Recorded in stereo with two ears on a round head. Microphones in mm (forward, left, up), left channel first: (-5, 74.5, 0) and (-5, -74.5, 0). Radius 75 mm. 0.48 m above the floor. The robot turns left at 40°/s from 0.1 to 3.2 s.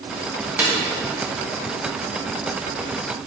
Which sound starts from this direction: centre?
A snare drum, at 0.6 s.